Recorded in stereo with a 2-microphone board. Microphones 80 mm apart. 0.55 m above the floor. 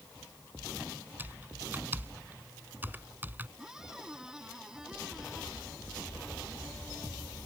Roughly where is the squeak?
Centre.